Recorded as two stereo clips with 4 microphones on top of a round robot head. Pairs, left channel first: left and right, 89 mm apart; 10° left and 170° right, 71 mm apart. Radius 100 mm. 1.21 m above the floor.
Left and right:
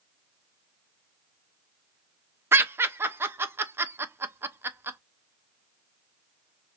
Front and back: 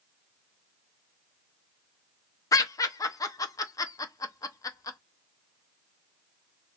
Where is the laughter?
25° right, 0.6 m.